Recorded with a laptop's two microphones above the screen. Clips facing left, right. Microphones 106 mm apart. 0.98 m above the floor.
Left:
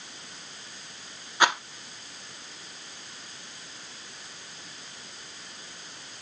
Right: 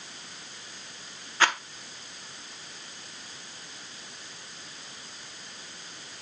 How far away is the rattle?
About 0.6 m.